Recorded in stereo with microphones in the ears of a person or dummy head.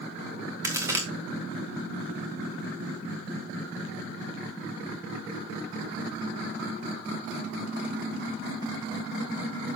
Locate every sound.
0.6 s a crack: 15° right (ahead or behind), 1.9 m